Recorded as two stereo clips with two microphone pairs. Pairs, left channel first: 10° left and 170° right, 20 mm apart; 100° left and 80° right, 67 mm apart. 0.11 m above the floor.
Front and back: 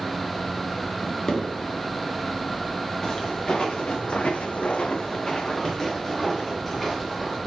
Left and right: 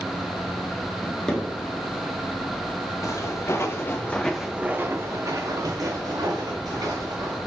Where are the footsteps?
65° left, 1.1 m; by 7.4 s 75° right, 1.9 m.